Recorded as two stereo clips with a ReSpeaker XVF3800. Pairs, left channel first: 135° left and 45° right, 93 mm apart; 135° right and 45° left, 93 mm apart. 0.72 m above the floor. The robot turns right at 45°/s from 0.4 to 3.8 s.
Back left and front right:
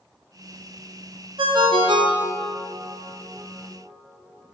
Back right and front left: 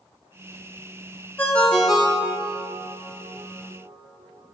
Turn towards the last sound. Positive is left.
turn(degrees=45)